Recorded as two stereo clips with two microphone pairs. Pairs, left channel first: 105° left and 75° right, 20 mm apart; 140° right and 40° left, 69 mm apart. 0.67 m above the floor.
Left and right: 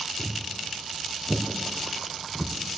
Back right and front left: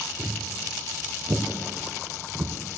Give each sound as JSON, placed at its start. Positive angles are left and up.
{"t": 0.2, "sound": "footsteps", "azimuth_deg": 15, "distance_m": 3.5}